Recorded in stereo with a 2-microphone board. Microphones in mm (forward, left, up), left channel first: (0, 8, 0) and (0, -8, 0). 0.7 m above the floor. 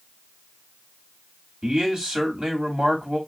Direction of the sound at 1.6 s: 45° right (ahead or behind).